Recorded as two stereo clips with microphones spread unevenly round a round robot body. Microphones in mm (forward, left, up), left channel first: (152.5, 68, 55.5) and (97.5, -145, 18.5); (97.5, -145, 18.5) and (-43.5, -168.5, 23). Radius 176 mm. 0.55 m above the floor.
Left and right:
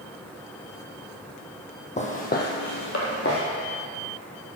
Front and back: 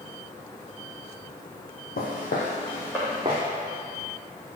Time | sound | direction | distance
2.0 | footsteps | 20° left | 1.3 m